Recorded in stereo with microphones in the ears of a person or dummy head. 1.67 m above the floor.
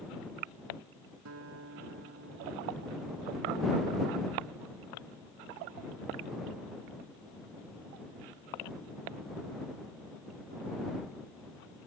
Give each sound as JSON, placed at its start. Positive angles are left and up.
{"t": 1.2, "sound": "a guitar", "side_deg": -85}